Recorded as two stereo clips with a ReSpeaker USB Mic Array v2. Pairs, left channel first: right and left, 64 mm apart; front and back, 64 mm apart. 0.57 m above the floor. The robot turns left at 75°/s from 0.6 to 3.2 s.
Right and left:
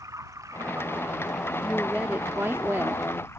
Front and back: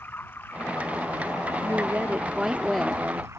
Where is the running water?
55° left; by 3.4 s 140° right.